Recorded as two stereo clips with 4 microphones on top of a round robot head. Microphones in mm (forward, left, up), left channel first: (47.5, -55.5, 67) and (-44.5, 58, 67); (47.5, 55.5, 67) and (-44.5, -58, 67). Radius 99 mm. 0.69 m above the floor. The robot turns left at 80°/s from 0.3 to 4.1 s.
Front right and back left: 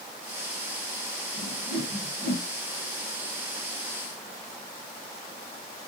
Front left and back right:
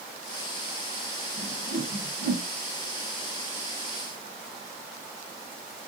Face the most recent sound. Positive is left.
turn(degrees=-30)